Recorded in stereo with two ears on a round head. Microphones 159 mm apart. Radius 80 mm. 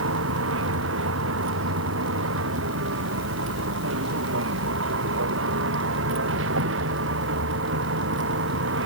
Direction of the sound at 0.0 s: 90° right.